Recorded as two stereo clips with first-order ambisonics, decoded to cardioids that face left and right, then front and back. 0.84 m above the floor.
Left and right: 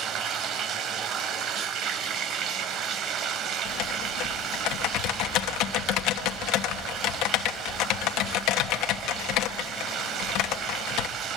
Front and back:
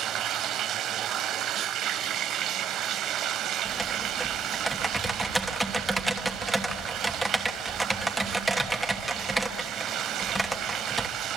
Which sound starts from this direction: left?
Typing on a keyboard, at 3.6 s.